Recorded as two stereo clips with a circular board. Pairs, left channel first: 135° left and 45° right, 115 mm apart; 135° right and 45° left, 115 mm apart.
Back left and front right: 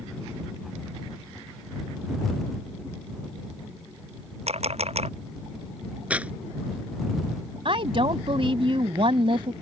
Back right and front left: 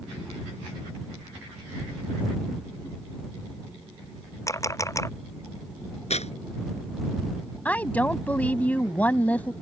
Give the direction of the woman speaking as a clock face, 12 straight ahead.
2 o'clock.